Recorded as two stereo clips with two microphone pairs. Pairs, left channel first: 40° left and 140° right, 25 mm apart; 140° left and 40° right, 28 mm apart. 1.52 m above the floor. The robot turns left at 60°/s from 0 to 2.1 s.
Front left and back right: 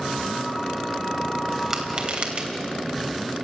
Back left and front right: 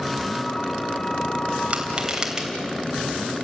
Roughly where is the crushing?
Right.